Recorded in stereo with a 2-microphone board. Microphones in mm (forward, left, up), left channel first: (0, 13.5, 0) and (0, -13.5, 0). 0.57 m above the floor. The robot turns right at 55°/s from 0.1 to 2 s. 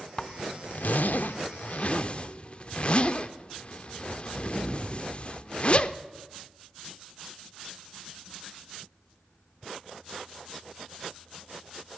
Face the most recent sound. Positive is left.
turn(degrees=35)  # may be behind; listen again after turning